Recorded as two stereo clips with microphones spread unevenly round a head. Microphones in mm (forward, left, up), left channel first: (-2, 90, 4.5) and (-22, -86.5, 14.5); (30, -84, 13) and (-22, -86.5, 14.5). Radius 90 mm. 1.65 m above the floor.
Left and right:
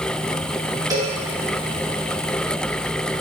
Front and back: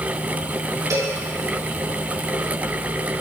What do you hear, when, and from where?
0.9 s a cowbell: 165° right, 2.5 m